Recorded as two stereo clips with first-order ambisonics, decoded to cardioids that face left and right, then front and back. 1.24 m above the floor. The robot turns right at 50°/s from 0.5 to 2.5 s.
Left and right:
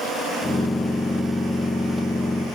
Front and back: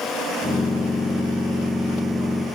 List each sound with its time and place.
Only background noise.